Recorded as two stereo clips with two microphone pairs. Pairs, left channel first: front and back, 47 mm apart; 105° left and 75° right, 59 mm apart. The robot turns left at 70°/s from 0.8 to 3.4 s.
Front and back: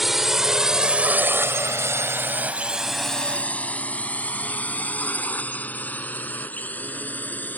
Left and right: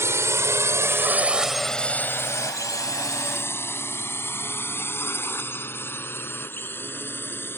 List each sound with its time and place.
0.0 s a drone: 95° right; by 7.6 s 55° left